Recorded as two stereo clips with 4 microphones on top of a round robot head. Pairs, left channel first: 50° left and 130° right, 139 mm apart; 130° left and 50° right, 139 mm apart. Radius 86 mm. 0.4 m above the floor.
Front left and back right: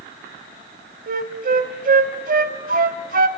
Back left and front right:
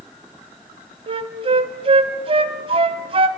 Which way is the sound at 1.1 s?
105° right.